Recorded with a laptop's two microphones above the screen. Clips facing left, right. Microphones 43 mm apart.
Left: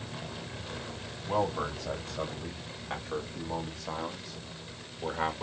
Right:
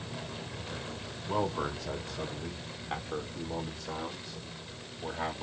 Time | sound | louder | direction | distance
1.3 | a man speaking | left 2 dB | 60° left (ahead or behind) | 2.5 m